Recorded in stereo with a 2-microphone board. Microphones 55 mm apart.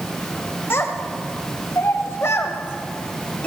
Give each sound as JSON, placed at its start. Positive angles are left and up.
{"t": 0.7, "sound": "a child speaking", "side_deg": 45, "distance_m": 1.5}